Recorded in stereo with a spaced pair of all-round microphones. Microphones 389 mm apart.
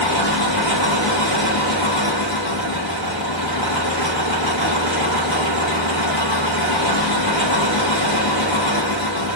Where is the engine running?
85° left, 5 m.